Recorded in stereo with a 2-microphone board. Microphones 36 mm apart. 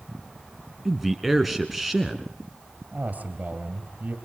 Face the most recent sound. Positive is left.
turn(degrees=-50)  # may be behind; listen again after turning